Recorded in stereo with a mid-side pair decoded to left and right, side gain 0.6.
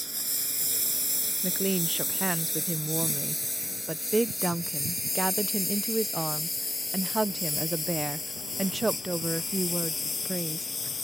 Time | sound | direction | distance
0.0 | a lawn mower | 5° right | ?
1.4 | a woman speaking | 10° right | ?